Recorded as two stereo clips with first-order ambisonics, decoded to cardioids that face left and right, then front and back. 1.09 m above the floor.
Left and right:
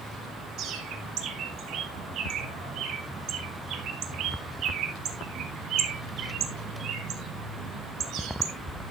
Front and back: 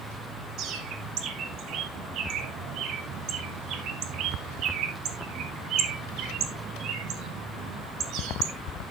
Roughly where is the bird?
Behind right.